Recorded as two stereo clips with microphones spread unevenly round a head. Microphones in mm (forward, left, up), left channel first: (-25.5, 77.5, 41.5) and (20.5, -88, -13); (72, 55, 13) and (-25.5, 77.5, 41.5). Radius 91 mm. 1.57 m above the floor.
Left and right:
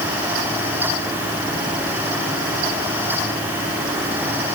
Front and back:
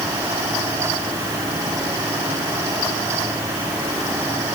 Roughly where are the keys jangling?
I don't hear keys jangling.